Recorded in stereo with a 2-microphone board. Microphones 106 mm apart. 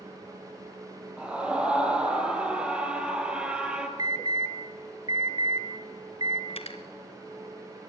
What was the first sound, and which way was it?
A scream, 10° right (ahead or behind).